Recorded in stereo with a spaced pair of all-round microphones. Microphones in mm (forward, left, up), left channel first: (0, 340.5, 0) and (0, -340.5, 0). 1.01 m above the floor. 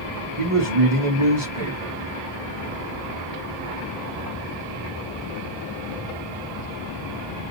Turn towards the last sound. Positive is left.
turn(degrees=-45)  # may be behind; listen again after turning